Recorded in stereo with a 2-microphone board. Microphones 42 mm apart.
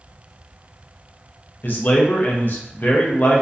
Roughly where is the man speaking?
Left.